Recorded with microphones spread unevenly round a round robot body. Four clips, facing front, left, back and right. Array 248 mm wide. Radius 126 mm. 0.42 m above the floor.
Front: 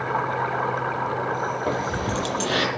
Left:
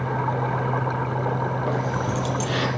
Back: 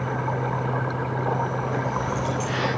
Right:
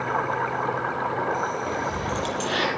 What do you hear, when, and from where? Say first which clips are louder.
1.7 s keys jangling: left 2 dB, front 1 dB; 10° left, 8 m; by 2.7 s 5° left, 6.5 m